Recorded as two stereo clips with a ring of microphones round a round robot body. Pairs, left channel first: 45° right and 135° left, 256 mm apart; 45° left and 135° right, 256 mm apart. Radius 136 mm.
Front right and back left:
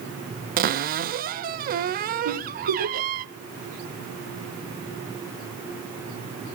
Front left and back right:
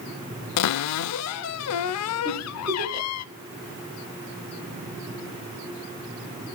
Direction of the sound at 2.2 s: 155° left.